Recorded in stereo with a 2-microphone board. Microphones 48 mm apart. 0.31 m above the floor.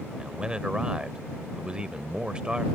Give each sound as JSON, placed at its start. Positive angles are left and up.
{"t": 0.2, "sound": "a man speaking", "side_deg": -20}